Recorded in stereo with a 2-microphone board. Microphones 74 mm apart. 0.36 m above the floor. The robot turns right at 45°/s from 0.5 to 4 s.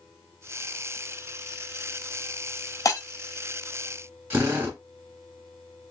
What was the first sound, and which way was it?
Breaking glass, 50° left (ahead or behind).